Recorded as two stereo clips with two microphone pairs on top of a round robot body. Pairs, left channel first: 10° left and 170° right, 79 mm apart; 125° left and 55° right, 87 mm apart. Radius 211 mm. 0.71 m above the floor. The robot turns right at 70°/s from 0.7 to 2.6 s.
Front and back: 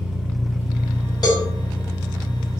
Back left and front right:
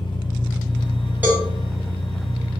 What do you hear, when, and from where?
0.0 s an engine running: 105° left, 0.7 m; by 2.6 s 120° right, 0.7 m
1.2 s a cowbell: 15° left, 1.7 m; by 1.4 s 35° left, 1.7 m